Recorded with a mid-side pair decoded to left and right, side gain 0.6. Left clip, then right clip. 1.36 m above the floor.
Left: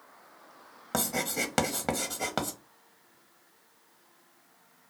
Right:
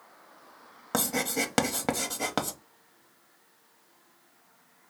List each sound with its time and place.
0.9 s writing: 15° right, 0.7 m